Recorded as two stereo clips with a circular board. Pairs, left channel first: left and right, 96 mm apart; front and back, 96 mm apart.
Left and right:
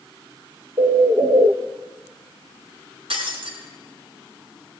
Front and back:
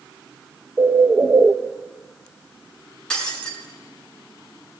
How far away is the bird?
About 1.0 m.